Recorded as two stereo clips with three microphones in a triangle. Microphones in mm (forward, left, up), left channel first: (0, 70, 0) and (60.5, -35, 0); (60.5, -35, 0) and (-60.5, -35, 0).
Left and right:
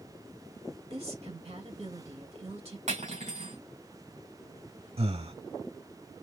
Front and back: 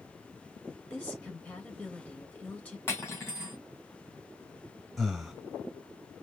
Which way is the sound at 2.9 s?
70° right.